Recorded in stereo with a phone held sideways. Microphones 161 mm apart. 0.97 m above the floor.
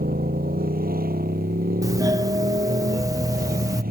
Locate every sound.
0.0 s a motorcycle: 80° right
1.8 s a doorbell: 20° right (ahead or behind)